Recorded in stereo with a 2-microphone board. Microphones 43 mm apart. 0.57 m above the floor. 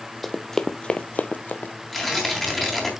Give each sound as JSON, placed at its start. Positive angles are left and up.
{"t": 0.2, "sound": "running footsteps", "side_deg": 0, "distance_m": 0.9}
{"t": 1.9, "sound": "tearing paper", "side_deg": 0, "distance_m": 3.0}